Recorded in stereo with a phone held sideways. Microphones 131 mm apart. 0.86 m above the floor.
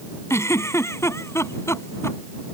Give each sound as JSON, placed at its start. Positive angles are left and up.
{"t": 0.3, "sound": "a giggle", "side_deg": 20}